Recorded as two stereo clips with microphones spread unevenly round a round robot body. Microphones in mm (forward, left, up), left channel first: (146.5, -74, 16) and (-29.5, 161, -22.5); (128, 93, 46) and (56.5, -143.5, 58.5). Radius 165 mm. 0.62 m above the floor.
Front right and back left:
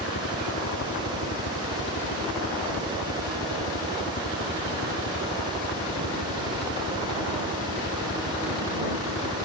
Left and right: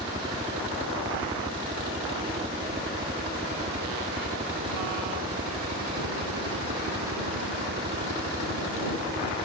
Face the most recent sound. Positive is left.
turn(degrees=-110)